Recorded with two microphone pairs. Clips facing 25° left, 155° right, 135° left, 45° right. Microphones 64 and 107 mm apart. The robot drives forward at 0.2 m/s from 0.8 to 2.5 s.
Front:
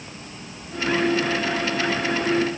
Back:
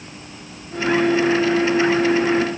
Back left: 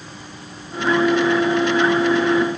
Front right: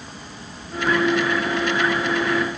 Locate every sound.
Only background noise.